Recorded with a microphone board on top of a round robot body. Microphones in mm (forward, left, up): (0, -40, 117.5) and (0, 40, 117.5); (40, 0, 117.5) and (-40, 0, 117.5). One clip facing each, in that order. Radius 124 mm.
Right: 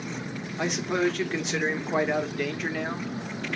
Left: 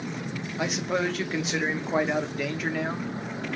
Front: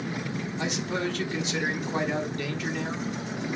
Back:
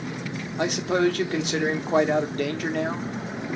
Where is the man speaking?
175° left, 1.3 m.